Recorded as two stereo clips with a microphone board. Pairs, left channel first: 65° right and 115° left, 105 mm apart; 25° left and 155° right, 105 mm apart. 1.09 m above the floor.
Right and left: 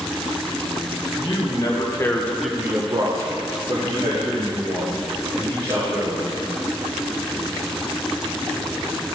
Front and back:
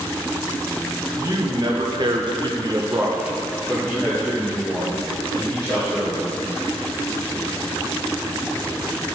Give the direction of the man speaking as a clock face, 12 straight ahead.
4 o'clock.